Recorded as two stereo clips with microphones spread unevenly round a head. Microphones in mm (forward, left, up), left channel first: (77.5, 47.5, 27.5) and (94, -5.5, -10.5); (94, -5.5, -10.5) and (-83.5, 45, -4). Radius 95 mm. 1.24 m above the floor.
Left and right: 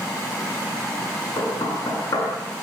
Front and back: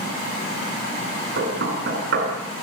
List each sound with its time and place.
1.4 s knocking: 135° left, 8.5 m